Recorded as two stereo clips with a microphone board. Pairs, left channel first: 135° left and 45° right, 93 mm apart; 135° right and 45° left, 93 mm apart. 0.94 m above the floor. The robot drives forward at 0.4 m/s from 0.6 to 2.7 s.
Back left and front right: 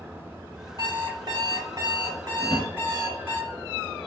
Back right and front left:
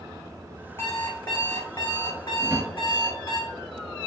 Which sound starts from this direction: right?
An alarm clock, at 0.8 s.